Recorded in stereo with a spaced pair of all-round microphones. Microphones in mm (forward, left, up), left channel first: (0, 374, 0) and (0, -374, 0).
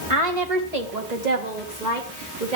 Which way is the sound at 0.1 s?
45° right (ahead or behind).